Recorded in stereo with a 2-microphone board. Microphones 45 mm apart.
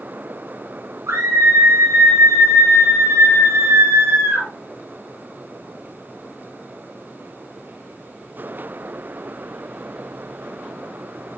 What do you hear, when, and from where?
1.1 s a scream: 80° right, 9 m; by 4.5 s 70° right (ahead or behind), 5.5 m